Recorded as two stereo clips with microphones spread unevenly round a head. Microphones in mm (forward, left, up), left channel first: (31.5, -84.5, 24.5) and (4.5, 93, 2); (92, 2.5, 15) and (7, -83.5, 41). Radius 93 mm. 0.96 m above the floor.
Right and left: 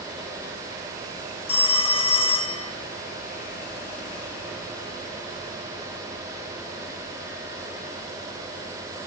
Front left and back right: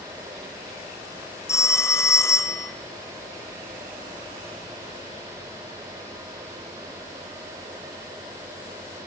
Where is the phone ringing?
20° right, 1.4 m.